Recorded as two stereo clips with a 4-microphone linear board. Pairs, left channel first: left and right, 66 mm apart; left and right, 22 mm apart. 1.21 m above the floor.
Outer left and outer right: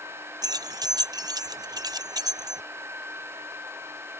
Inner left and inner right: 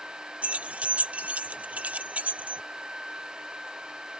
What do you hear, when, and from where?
0.4 s keys jangling: 80° right